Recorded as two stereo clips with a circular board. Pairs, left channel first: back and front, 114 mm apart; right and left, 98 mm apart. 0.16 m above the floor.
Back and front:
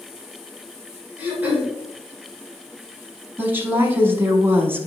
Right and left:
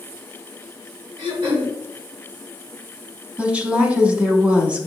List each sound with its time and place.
1.2 s throat clearing: 75° left, 3 m
3.4 s a woman speaking: 35° left, 1.2 m